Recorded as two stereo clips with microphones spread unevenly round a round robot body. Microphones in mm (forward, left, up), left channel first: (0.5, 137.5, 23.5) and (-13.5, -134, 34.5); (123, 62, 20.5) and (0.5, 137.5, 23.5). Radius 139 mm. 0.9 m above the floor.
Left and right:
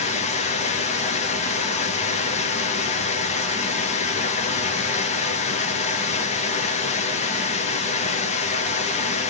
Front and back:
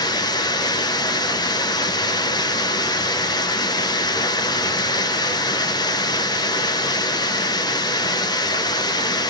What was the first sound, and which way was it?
Running water, 25° left.